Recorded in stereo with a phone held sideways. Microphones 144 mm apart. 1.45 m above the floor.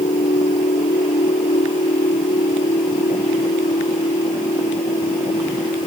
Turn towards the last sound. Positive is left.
turn(degrees=65)  # may be behind; listen again after turning